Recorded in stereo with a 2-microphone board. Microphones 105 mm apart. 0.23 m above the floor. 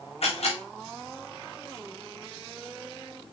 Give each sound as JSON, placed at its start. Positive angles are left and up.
{"t": 0.2, "sound": "a camera shutter", "side_deg": 65, "distance_m": 3.5}